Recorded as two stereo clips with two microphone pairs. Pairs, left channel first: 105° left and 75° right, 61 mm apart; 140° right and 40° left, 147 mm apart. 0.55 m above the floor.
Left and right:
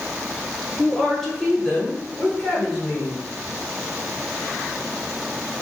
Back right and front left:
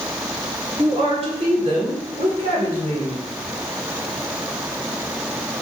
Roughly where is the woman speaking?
Ahead left.